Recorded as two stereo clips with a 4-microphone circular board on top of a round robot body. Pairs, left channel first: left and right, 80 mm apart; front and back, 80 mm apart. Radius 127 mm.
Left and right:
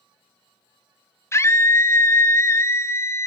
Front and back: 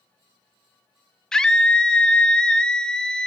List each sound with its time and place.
1.3 s a scream: 75° left, 0.9 m